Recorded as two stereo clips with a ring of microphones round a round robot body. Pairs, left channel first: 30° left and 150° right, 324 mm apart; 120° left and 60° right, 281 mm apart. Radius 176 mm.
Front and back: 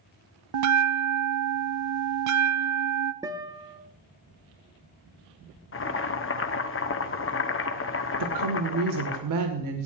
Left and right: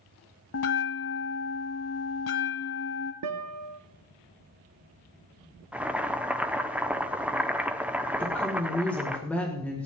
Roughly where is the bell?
Behind.